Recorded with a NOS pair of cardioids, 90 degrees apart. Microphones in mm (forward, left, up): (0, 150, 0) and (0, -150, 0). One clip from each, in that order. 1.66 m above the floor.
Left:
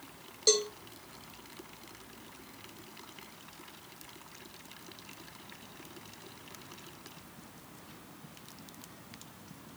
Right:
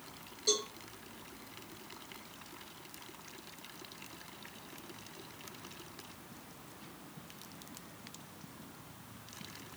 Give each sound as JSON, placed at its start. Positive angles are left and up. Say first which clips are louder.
{"t": 0.5, "sound": "a cowbell", "louder": "left 6 dB", "azimuth_deg": 70, "distance_m": 1.6}